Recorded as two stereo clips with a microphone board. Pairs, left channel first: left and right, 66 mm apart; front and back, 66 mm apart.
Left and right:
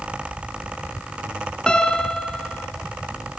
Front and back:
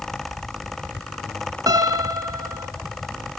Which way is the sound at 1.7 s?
165° left.